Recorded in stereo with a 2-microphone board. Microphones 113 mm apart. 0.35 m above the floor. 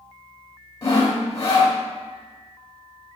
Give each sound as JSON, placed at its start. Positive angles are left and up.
{"t": 0.8, "sound": "sawing", "side_deg": 30, "distance_m": 1.7}